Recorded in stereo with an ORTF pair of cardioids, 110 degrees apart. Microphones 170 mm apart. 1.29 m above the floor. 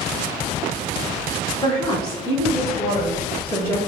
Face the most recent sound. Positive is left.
turn(degrees=15)